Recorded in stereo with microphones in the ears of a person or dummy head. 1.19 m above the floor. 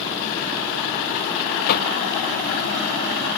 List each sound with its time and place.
1.7 s knocking: 55° left (ahead or behind), 0.7 m